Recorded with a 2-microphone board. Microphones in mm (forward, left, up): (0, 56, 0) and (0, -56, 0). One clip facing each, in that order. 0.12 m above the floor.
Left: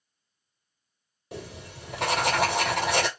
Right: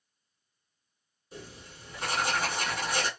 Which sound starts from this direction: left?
Writing, at 1.3 s.